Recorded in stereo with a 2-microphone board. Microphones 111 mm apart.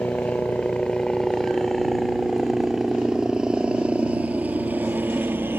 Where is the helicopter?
10° left (ahead or behind); by 5.6 s 20° right (ahead or behind).